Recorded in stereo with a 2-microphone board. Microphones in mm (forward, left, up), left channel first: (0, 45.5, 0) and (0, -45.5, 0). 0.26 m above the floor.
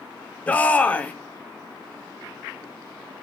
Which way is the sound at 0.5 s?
15° left (ahead or behind).